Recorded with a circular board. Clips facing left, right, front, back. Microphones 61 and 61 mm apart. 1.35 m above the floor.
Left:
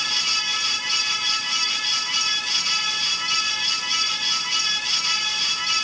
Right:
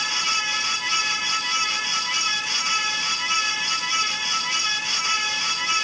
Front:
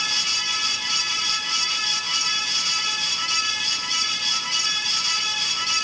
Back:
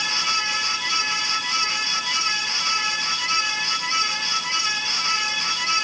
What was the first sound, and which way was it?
Only background noise.